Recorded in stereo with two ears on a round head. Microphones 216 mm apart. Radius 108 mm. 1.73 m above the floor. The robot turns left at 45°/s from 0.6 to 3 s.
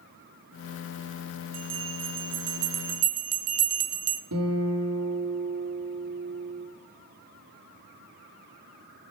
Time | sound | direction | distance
1.5 | a bell | 70° right | 0.9 m
4.3 | a guitar | 70° right (ahead or behind) | 3 m